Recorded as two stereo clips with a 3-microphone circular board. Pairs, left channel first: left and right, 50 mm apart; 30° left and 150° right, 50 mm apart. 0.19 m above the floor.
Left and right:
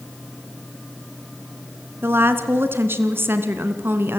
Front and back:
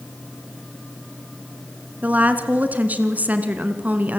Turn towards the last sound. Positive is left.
turn(degrees=-100)